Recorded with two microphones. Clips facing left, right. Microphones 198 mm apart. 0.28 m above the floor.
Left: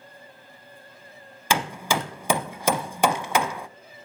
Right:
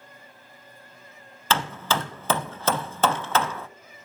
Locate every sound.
1.5 s hammering: 15° left (ahead or behind), 0.6 m